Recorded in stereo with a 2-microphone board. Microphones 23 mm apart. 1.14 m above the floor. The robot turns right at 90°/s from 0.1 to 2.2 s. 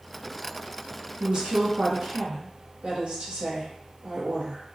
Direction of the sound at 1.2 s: 155° right.